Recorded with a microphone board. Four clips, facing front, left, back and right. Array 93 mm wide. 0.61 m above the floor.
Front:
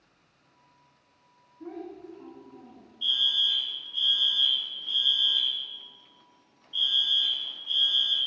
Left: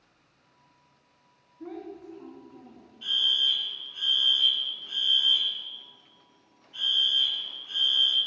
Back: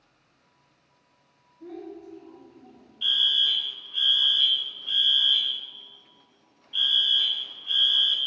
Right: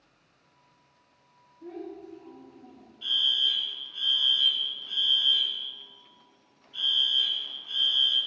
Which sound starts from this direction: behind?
A fire alarm, at 3.0 s.